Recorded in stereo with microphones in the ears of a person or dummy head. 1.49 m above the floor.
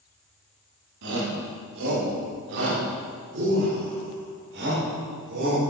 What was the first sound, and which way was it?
A shout, 70° right (ahead or behind).